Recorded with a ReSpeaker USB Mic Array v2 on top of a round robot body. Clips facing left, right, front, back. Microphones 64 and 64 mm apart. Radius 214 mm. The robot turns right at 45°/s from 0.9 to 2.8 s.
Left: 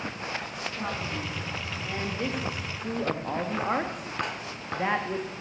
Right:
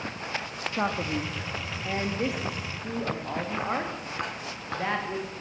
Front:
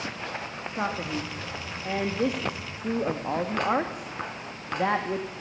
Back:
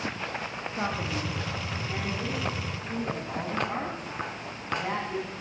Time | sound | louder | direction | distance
0.8 | a man speaking | right 6 dB, front 2 dB | 75° right | 3 m